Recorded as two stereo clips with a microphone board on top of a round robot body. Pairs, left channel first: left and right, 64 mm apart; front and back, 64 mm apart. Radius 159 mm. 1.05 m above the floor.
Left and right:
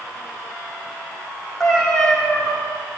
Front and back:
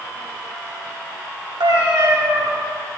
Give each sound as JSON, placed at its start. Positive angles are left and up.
{"t": 1.6, "sound": "a cat meowing", "azimuth_deg": 170, "distance_m": 1.4}